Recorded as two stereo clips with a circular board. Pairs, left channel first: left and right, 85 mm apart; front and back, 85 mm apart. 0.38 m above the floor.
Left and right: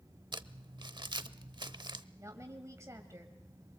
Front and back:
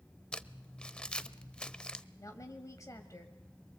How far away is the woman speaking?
About 1.8 m.